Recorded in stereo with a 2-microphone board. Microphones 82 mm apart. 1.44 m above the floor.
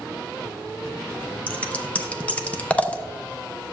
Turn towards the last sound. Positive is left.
turn(degrees=15)  # may be behind; listen again after turning